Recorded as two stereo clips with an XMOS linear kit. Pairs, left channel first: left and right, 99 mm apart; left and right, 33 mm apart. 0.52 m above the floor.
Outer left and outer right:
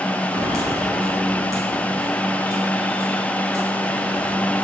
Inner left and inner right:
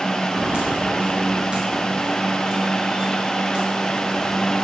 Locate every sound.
0.3 s footsteps: 35° right (ahead or behind), 6.5 m; by 4.5 s 30° right (ahead or behind), 10 m